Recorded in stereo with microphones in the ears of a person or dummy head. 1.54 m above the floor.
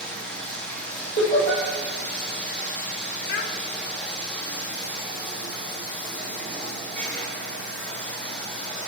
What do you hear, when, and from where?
0.0 s running water: 10° left (ahead or behind), 1.0 m
1.2 s laughter: 50° left (ahead or behind), 1.7 m
3.3 s a child speaking: 60° left (ahead or behind), 0.6 m